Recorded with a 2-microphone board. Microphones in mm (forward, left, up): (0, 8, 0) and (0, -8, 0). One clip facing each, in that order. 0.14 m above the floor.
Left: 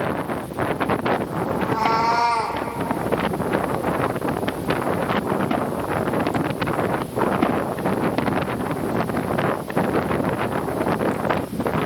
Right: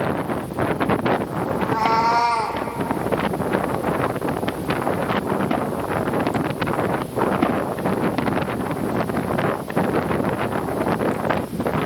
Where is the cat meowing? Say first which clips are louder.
Right 1 dB; 80° right, 1.5 m; by 2.6 s 15° right (ahead or behind), 0.9 m.